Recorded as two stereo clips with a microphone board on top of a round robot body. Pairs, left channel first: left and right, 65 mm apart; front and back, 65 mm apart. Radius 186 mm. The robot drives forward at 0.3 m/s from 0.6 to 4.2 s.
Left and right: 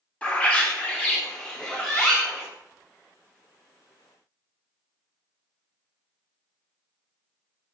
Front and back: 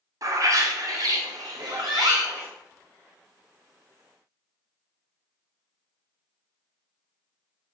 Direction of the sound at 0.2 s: 160° left.